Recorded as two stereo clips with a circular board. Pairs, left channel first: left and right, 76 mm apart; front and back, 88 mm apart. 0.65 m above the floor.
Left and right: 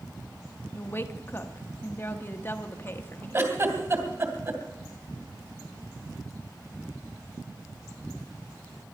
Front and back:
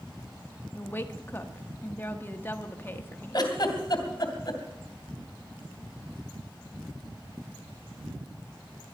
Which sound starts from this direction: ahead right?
A giggle, at 3.3 s.